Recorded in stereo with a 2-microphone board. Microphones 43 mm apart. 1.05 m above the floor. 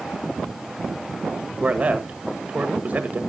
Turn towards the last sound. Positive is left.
turn(degrees=-40)  # may be behind; listen again after turning